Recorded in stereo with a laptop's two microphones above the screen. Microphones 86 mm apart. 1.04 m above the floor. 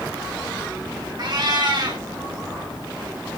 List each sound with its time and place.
1.2 s a cat meowing: 55° right (ahead or behind), 1.2 m